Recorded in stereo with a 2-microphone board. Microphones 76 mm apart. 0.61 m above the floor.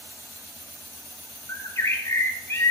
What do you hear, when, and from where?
1.5 s a bird: 40° left (ahead or behind), 1.5 m